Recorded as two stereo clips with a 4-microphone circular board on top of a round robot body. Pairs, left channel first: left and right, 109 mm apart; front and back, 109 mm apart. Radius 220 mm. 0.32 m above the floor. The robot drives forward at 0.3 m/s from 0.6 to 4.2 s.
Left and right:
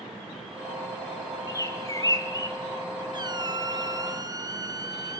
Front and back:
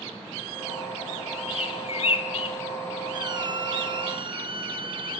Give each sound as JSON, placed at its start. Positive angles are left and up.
{"t": 1.5, "sound": "a bird", "azimuth_deg": 30, "distance_m": 2.0}
{"t": 3.1, "sound": "a squeak", "azimuth_deg": -135, "distance_m": 1.9}